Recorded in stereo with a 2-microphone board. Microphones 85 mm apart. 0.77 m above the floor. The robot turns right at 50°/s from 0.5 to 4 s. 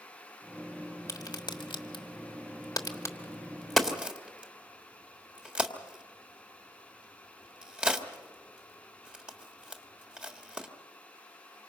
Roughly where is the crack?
Left.